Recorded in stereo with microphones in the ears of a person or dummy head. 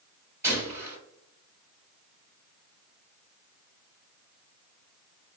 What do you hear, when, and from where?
0.4 s a gunshot: 15° right (ahead or behind), 1.0 m